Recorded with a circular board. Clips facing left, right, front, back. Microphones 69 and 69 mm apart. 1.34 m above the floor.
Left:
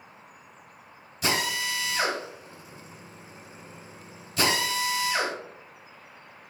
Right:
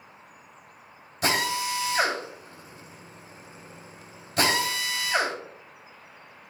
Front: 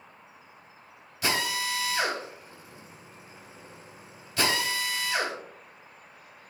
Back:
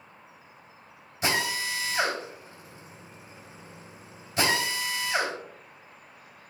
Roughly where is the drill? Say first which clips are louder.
Right 2 dB, back 1 dB; behind right.